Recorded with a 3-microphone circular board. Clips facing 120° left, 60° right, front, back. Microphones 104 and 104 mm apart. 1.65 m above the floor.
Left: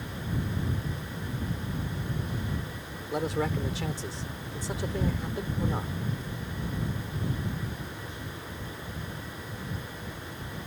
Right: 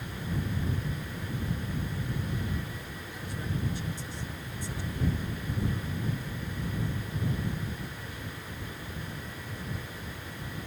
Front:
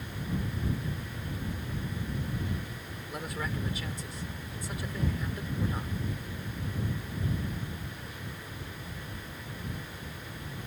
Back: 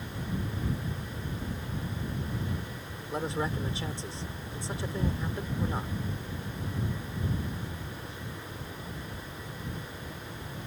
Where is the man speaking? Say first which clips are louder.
Left 10 dB, back 5 dB; 120° left.